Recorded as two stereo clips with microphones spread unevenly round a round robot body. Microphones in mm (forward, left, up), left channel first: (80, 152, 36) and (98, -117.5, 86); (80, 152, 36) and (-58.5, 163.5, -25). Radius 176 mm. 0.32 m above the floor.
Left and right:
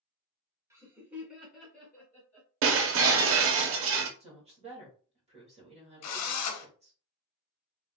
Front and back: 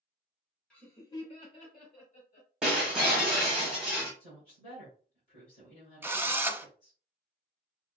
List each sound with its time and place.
0.7 s laughter: 175° right, 1.3 m; by 2.5 s 20° left, 2 m
2.6 s breaking glass: 125° right, 0.6 m
4.2 s a woman speaking: 15° right, 1.8 m
6.0 s a drill: 110° left, 0.6 m